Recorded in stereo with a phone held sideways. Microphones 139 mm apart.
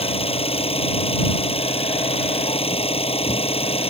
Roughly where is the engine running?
Left.